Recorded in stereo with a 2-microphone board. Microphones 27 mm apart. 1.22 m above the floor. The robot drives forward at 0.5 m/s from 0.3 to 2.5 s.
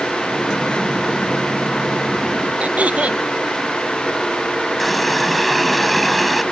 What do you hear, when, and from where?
2.6 s throat clearing: 70° right (ahead or behind)
4.8 s a running tap: centre (ahead or behind)